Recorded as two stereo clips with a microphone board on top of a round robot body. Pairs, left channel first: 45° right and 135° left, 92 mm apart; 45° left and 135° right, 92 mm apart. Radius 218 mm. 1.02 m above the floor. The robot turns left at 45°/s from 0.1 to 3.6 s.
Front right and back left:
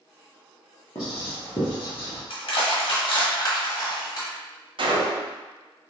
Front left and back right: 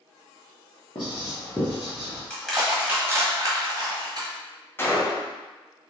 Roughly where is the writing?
Ahead.